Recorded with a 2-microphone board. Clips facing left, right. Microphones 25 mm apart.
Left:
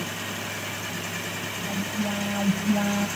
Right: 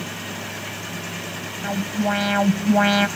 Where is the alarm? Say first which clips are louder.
Right 7 dB; 65° right (ahead or behind).